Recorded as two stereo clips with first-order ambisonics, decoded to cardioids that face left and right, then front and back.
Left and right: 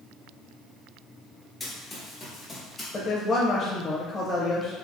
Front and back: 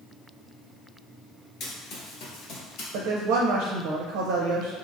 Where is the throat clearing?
I don't hear throat clearing.